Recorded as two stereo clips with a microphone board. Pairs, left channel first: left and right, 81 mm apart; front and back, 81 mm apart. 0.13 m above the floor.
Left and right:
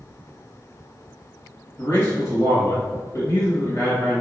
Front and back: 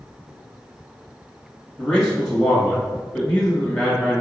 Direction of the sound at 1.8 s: 75° left.